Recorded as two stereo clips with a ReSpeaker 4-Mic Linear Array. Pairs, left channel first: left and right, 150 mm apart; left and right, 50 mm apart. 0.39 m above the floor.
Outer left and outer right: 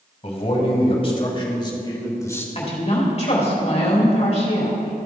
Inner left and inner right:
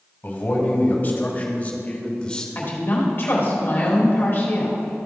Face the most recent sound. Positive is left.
turn(degrees=45)  # may be behind; listen again after turning